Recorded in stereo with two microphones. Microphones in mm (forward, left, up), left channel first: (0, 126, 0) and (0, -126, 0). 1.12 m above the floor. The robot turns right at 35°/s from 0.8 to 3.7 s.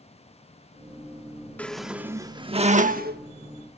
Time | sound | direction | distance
1.6 | a squeak | 175° left | 1.0 m